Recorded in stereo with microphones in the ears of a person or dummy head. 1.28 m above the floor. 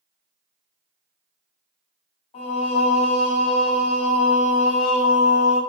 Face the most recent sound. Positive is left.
turn(degrees=40)  # may be behind; listen again after turning